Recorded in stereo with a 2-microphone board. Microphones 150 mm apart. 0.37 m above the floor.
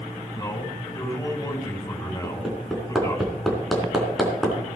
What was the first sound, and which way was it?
A man speaking, 25° left (ahead or behind).